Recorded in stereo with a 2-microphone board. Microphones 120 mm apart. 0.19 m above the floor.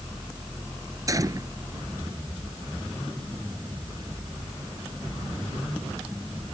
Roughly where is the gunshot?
Right.